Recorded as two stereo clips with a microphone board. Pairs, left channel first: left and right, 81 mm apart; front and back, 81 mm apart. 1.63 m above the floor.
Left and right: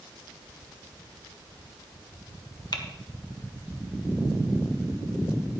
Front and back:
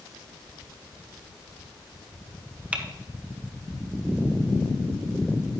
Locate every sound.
2.7 s typing on a keyboard: 105° left, 0.9 m